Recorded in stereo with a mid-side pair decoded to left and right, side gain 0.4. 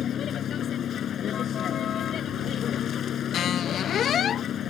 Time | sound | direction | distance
0.0 | a vehicle | 65° left | ?
3.3 | a squeak | 70° left | ?